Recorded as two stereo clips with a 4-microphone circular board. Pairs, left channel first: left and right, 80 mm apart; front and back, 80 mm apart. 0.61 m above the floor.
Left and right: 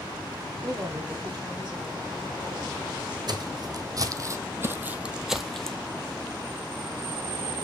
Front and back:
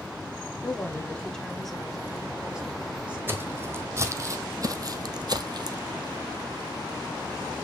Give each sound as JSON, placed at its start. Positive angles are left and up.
{"t": 0.6, "sound": "a woman speaking", "azimuth_deg": -50, "distance_m": 1.6}
{"t": 3.3, "sound": "footsteps", "azimuth_deg": -120, "distance_m": 1.6}